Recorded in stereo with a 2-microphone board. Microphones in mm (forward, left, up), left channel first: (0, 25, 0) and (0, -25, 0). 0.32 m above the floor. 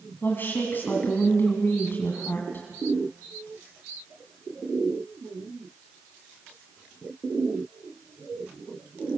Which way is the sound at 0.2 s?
45° left (ahead or behind).